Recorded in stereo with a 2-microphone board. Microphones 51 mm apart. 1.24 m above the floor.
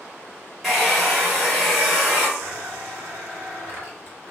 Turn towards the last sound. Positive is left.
turn(degrees=-40)  # may be behind; listen again after turning